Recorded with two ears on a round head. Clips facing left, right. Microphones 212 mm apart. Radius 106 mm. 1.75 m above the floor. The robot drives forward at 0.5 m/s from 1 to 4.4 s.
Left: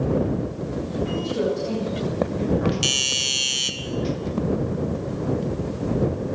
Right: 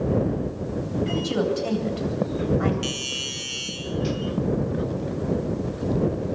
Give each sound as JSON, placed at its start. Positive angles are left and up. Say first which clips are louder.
{"t": 1.1, "sound": "a woman speaking", "louder": "even", "side_deg": -75, "distance_m": 8.5}
{"t": 2.8, "sound": "a doorbell", "louder": "left 1 dB", "side_deg": 60, "distance_m": 2.5}